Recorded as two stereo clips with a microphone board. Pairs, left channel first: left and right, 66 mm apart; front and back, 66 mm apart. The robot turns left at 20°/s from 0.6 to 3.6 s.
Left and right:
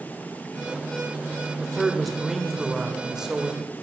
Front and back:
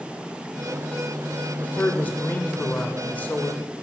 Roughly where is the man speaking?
Ahead.